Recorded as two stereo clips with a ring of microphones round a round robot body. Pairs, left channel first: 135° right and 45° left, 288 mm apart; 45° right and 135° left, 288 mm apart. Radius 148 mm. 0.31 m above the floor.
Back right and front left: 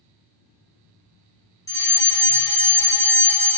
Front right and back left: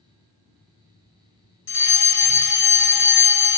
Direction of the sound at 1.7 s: 60° right.